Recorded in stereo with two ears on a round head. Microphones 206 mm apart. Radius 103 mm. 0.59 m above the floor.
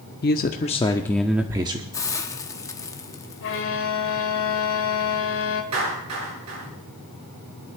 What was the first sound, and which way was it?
A man speaking, 40° left (ahead or behind).